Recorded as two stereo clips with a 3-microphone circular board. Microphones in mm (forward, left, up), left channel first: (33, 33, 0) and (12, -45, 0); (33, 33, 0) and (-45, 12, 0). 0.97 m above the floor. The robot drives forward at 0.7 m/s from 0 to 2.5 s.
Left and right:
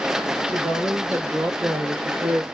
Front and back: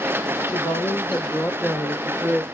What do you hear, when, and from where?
0.5 s a woman speaking: 30° right, 2.5 m; by 2.4 s 60° right, 1.8 m